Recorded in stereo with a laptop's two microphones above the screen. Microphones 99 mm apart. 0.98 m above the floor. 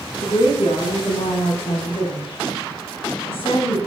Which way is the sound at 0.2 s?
80° left.